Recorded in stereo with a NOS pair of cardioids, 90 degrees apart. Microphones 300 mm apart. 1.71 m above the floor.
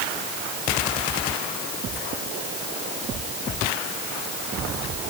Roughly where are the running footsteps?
I don't hear running footsteps.